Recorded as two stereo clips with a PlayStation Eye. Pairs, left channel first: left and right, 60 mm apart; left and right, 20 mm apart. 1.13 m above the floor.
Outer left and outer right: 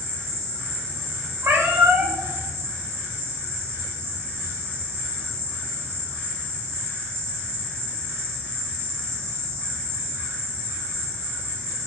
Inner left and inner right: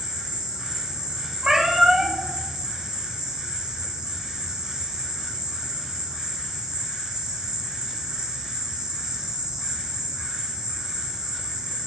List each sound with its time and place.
0.0 s an insect: 45° right (ahead or behind), 1.5 m
1.4 s a cat meowing: 45° right (ahead or behind), 1.6 m